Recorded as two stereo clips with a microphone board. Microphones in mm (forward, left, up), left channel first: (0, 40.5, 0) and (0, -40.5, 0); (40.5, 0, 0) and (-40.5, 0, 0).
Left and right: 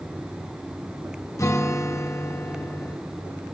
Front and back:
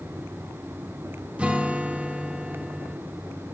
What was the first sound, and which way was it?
A guitar, 110° left.